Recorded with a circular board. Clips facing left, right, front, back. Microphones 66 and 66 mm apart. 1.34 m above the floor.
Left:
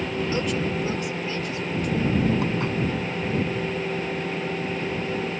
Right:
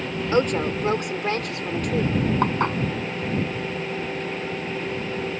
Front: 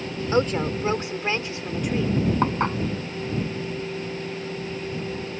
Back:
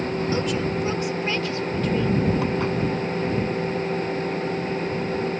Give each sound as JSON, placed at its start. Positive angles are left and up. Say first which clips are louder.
{"t": 0.3, "sound": "a woman speaking", "louder": "right 8 dB, front 6 dB", "azimuth_deg": -50}
{"t": 2.4, "sound": "dishes clattering", "louder": "right 3 dB, even", "azimuth_deg": -50}